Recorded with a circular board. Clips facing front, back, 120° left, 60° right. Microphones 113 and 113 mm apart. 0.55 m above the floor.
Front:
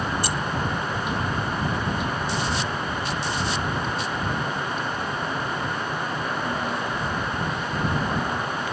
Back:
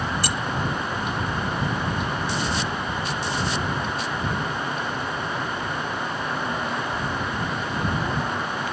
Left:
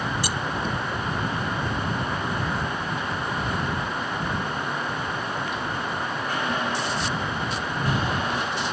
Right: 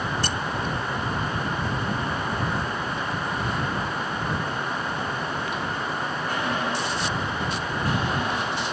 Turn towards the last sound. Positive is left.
turn(degrees=-160)